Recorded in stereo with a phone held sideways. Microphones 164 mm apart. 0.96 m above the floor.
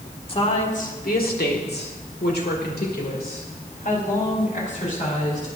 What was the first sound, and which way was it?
A woman speaking, 35° left (ahead or behind).